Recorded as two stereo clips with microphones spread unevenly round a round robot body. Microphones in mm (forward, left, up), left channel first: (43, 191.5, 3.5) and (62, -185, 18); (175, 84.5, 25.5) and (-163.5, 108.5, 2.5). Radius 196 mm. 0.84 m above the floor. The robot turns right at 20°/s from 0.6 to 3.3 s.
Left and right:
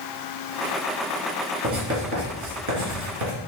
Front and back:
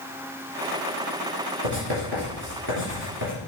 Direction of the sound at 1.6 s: 150° right.